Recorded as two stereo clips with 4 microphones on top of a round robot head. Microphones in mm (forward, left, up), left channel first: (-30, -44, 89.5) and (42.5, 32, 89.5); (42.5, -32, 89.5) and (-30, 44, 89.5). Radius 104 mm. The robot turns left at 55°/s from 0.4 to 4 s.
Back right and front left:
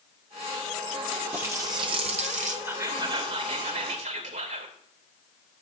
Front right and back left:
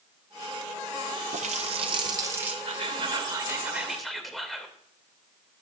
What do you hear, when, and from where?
1.3 s a running tap: 125° left, 0.5 m; by 2.5 s 55° left, 0.5 m
2.6 s whispering: 120° left, 2.5 m; by 4.8 s 45° left, 2.5 m